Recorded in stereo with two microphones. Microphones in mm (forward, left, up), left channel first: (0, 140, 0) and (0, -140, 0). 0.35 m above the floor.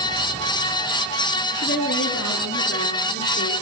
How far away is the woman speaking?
About 6 m.